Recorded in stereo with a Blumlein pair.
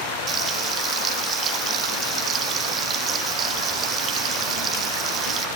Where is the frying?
25° right, 1.7 m.